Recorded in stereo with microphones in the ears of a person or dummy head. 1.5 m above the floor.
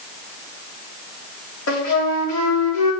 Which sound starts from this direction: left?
A flute, at 1.7 s.